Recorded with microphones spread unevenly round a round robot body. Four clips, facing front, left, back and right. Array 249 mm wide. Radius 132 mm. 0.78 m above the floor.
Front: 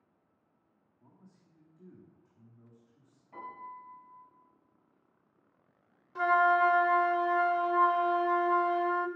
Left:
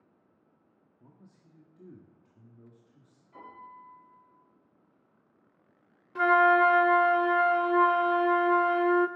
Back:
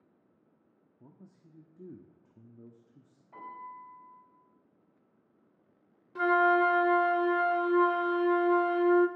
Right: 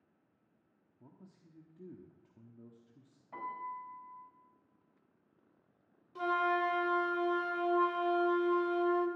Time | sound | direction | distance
1.0 | a man speaking | 175° right | 1.2 m
3.3 | a piano | 65° right | 6 m
6.2 | a flute | 105° left | 0.5 m